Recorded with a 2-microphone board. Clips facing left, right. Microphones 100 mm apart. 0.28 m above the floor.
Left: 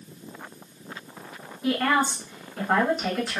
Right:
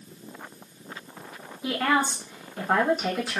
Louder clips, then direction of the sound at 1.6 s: Left 1 dB; 5° right (ahead or behind).